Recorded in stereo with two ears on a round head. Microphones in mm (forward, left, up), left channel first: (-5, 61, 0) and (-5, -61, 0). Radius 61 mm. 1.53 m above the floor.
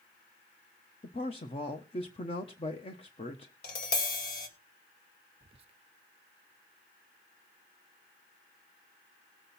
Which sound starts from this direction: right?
Whispering, at 5.4 s.